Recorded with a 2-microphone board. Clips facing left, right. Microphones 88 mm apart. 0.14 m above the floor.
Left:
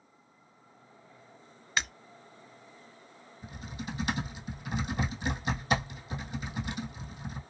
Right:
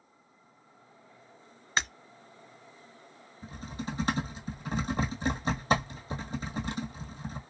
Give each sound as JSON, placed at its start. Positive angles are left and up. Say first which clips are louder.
{"t": 1.8, "sound": "breaking glass", "louder": "right 2 dB", "side_deg": -30, "distance_m": 0.8}
{"t": 3.4, "sound": "typing on a keyboard", "louder": "right 2 dB", "side_deg": -35, "distance_m": 1.6}